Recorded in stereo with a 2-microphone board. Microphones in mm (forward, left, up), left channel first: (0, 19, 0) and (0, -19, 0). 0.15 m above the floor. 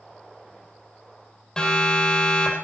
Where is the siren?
15° left (ahead or behind), 7.5 m.